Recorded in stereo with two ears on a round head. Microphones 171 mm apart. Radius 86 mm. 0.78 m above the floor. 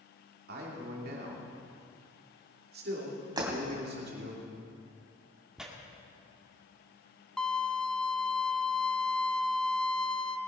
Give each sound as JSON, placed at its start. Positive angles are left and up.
{"t": 0.5, "sound": "a man speaking", "side_deg": -60, "distance_m": 2.5}
{"t": 3.4, "sound": "breaking glass", "side_deg": -25, "distance_m": 3.0}
{"t": 5.6, "sound": "tearing paper", "side_deg": -5, "distance_m": 1.8}
{"t": 7.4, "sound": "a violin", "side_deg": 5, "distance_m": 0.5}